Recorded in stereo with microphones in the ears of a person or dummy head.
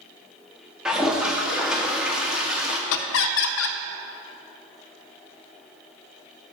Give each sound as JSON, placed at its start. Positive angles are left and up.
{"t": 0.8, "sound": "a toilet flushing", "side_deg": -5, "distance_m": 0.8}
{"t": 2.9, "sound": "laughter", "side_deg": 75, "distance_m": 0.5}